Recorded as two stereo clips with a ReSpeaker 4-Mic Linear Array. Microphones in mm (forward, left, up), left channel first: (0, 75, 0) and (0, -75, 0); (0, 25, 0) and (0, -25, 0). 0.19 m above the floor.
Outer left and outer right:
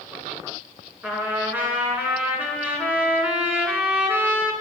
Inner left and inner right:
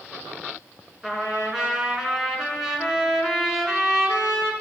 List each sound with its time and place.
1.0 s a trumpet: 10° right (ahead or behind), 2.5 m